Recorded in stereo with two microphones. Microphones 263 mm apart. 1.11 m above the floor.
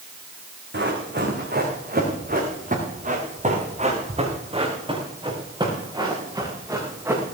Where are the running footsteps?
45° right (ahead or behind), 5 m; by 7.3 s 10° right (ahead or behind), 6 m.